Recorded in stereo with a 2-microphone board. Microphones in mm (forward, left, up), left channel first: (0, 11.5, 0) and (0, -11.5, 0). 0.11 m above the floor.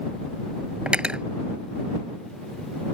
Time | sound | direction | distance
0.9 | cutlery clinking | 50° right (ahead or behind) | ?